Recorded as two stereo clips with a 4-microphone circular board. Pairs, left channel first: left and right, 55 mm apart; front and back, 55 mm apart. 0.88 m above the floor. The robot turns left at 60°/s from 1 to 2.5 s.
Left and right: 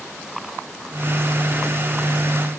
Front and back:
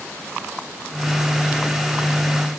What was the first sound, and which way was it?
Only background noise.